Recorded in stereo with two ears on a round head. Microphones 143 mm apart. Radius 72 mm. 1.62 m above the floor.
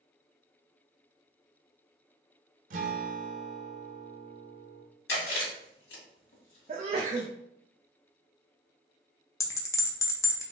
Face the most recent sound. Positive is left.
turn(degrees=20)  # may be behind; listen again after turning